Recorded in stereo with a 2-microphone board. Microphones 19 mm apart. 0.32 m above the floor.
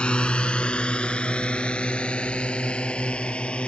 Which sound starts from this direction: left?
A drone, at 0.0 s.